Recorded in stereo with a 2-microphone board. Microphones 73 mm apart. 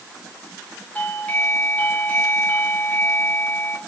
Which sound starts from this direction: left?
A doorbell, at 0.9 s.